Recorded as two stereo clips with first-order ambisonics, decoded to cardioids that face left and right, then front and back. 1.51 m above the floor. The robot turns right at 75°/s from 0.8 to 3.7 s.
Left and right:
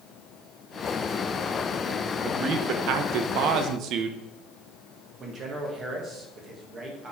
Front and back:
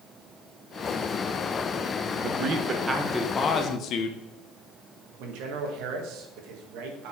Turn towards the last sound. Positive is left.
turn(degrees=-155)